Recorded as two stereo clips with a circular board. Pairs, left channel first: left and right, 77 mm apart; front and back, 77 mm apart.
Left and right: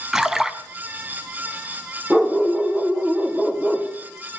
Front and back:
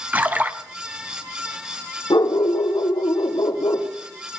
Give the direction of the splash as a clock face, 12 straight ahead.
5 o'clock.